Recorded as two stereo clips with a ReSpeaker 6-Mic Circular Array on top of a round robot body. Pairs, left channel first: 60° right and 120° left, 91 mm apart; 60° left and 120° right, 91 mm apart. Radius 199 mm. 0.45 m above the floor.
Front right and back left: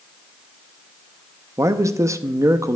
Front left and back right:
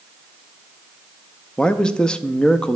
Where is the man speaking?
135° left, 0.8 m.